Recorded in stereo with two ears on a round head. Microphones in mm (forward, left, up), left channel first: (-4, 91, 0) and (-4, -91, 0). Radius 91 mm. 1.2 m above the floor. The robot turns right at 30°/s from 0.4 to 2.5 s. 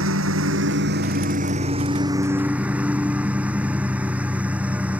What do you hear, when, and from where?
0.0 s a lawn mower: 70° right; by 5.0 s 5° right